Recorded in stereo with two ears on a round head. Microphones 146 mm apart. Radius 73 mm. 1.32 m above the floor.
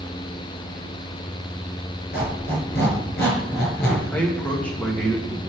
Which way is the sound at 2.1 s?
65° left (ahead or behind).